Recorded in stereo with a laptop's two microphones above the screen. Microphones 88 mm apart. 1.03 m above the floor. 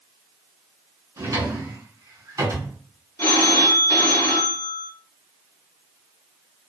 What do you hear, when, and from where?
1.2 s a drawer: 45° right (ahead or behind), 2 m
3.2 s a phone ringing: 40° left (ahead or behind), 0.8 m